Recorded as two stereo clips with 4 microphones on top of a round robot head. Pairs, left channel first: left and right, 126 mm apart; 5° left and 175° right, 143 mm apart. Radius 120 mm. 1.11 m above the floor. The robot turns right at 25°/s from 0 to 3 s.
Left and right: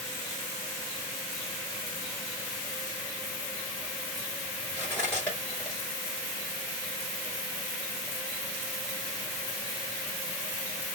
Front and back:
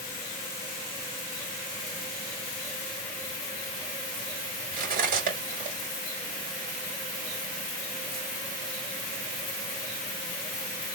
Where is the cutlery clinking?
170° left, 2.5 m.